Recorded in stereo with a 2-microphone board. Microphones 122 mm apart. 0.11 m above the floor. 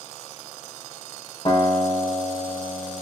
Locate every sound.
1.4 s a guitar: 50° left (ahead or behind), 3 m